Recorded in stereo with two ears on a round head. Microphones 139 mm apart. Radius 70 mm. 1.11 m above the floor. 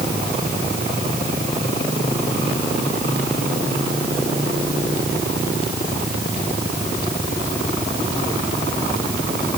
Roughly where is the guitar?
I don't hear a guitar.